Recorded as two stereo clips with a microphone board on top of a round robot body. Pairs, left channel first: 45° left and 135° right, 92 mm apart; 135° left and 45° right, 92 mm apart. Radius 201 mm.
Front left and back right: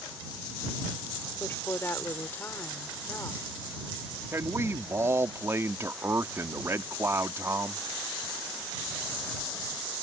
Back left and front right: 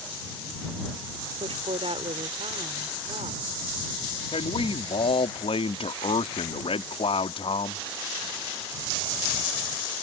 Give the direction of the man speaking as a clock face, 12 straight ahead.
7 o'clock.